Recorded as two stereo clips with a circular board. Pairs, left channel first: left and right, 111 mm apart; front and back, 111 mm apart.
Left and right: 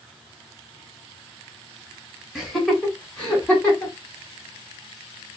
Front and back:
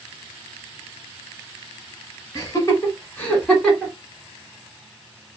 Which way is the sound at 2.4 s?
10° right.